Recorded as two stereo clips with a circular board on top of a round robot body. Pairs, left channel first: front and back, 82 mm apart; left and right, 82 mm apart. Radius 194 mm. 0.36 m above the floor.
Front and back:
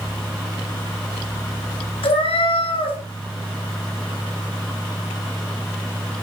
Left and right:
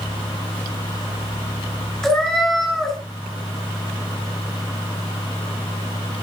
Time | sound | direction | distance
2.0 | a cat meowing | 5° left | 3 m